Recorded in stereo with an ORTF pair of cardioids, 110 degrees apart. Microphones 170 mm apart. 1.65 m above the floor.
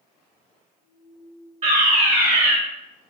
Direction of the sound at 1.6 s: 40° right.